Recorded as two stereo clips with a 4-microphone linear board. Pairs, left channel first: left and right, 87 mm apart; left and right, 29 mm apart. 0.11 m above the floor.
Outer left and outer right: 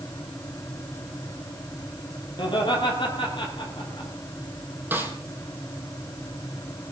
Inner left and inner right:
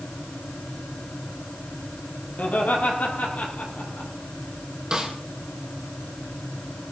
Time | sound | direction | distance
2.4 | laughter | 65° left (ahead or behind) | 3.5 m
4.9 | a snare drum | 20° right (ahead or behind) | 2 m